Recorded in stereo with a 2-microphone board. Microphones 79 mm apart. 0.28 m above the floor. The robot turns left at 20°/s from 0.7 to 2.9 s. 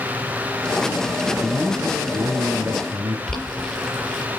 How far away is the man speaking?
About 2.5 m.